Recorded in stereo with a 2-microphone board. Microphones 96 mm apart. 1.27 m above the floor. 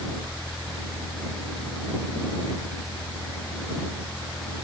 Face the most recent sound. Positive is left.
No sound to turn to.